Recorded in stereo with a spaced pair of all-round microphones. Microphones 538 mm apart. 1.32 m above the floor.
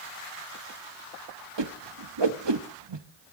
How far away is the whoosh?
About 1.0 m.